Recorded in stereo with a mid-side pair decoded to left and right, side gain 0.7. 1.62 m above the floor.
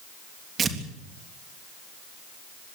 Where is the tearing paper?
30° right, 3 m.